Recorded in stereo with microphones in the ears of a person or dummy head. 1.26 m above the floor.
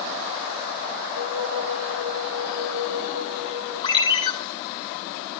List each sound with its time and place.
1.1 s a flute: 40° right (ahead or behind), 5 m
3.8 s a ringtone: 20° left (ahead or behind), 3 m